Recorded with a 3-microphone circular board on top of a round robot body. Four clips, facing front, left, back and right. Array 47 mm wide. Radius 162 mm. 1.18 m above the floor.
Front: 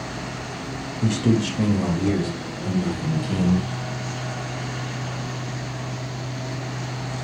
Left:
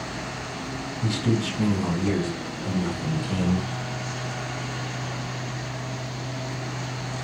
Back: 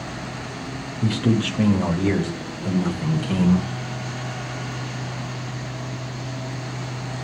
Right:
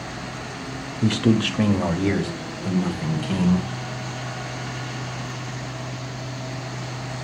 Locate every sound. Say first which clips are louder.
1.0 s a man speaking: right 6 dB, even; 95° right, 2 m; by 3.6 s 130° right, 5.5 m